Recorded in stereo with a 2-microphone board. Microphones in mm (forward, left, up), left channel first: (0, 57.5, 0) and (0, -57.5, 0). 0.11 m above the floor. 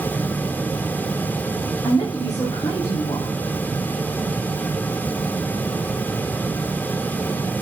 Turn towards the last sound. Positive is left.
turn(degrees=30)  # may be behind; listen again after turning